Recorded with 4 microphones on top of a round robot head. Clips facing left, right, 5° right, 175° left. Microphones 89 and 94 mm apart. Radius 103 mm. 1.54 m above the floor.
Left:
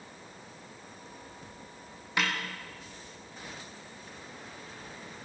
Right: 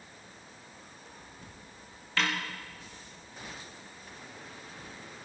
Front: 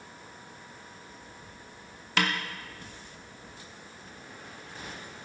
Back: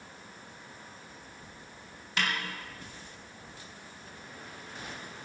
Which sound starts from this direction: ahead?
A snare drum, at 2.2 s.